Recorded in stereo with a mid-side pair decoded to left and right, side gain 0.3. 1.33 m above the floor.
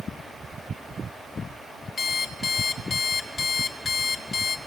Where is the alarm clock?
65° left, 1.6 m.